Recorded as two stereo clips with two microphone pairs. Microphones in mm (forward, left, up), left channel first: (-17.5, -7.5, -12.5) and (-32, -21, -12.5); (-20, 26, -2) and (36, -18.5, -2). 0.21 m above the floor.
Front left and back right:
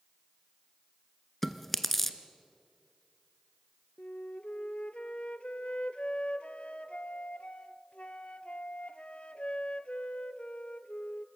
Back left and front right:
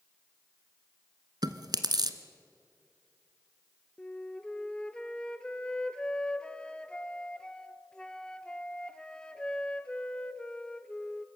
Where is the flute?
65° left, 0.6 m.